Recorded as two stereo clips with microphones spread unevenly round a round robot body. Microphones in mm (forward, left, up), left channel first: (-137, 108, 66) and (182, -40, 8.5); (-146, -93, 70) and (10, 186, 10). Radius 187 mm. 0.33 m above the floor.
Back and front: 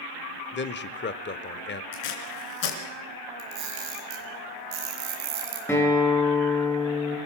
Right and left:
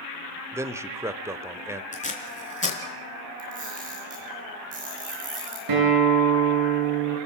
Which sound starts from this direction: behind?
Tape being pulled, at 1.9 s.